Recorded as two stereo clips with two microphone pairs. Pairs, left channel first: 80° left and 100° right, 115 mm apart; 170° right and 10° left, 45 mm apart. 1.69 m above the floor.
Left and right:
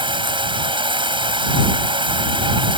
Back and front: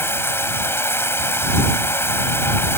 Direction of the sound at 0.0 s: 140° right.